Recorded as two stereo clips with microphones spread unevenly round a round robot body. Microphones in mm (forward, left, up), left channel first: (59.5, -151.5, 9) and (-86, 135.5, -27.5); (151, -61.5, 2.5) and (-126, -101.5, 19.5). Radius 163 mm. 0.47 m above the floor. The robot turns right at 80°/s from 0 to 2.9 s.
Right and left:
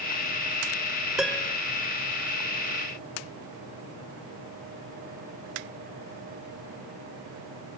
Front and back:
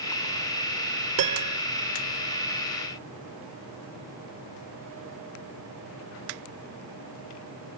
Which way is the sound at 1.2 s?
155° right.